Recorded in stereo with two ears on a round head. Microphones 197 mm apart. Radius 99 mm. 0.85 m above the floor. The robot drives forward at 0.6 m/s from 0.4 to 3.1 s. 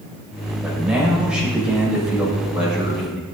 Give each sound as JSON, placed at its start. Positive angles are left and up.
{"t": 0.6, "sound": "a man speaking", "side_deg": -5, "distance_m": 4.5}